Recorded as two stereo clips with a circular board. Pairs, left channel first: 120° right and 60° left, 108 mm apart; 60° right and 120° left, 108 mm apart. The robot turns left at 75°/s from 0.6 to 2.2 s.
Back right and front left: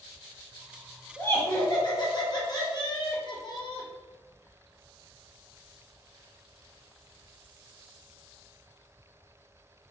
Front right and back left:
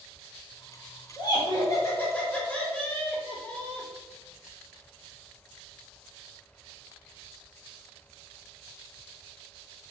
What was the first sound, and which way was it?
Laughter, 55° right.